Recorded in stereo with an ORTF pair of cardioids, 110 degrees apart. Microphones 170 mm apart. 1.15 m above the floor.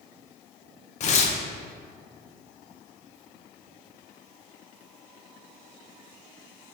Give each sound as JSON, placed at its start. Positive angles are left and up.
{"t": 1.0, "sound": "tearing paper", "azimuth_deg": 45, "distance_m": 0.6}